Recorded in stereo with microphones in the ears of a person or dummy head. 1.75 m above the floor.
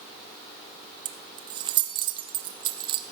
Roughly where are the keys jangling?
Right.